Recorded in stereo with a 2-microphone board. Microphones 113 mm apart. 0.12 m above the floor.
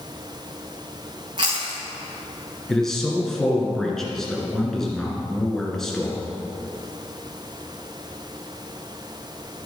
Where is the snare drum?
No snare drum in this recording.